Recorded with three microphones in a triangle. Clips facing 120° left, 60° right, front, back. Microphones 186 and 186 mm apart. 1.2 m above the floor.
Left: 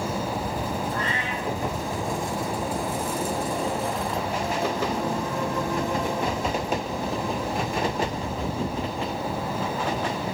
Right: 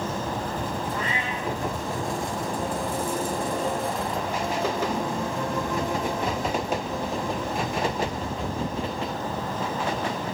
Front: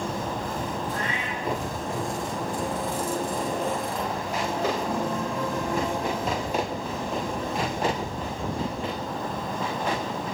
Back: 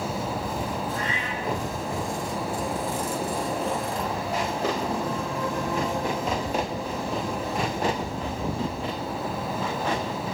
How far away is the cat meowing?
About 5.5 m.